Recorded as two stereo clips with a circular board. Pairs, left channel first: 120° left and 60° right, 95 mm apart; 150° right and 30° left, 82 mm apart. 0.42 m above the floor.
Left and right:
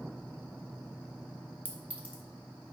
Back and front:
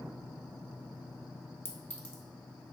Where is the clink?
120° right, 0.7 m.